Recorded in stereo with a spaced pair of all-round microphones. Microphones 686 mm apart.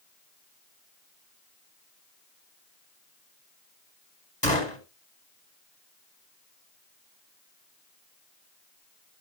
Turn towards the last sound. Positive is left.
turn(degrees=10)  # may be behind; listen again after turning